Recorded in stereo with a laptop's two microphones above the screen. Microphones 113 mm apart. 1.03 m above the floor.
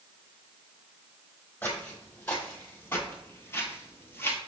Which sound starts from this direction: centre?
Footsteps, at 1.6 s.